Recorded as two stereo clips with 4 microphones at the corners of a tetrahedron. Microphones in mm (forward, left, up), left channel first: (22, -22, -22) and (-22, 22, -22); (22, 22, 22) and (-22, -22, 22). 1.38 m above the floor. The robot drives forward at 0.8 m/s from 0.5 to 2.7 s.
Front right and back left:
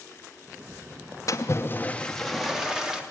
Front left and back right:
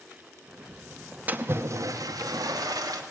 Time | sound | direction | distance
1.3 | a splash | 70° right | 0.7 m